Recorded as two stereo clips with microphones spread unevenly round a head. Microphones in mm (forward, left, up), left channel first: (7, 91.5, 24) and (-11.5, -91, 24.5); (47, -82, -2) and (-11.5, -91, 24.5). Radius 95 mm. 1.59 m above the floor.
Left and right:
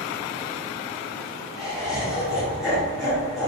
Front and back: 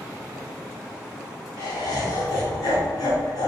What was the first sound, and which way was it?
Laughter, 10° right.